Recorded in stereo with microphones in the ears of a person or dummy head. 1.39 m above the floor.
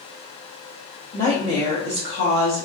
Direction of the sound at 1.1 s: 25° left (ahead or behind).